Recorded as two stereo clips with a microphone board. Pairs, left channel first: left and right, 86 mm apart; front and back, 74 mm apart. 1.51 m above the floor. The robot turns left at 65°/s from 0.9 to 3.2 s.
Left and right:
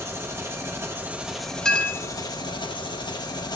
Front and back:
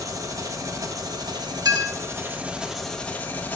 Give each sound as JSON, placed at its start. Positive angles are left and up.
{"t": 0.0, "sound": "an engine running", "azimuth_deg": -145, "distance_m": 1.2}
{"t": 1.6, "sound": "a clink", "azimuth_deg": 175, "distance_m": 1.4}